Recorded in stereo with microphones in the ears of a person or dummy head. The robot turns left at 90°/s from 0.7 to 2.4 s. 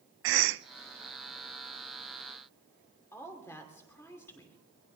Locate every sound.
0.2 s a cough: 65° right (ahead or behind), 0.6 m
3.1 s a woman speaking: 15° left (ahead or behind), 2.5 m